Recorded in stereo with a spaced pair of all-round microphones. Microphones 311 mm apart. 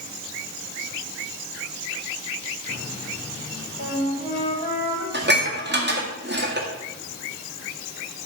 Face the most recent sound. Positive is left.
turn(degrees=-35)  # may be behind; listen again after turning